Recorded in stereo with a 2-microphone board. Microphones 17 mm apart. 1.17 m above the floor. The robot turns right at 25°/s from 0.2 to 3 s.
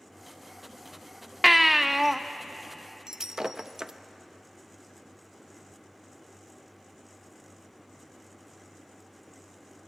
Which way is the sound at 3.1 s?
35° right (ahead or behind).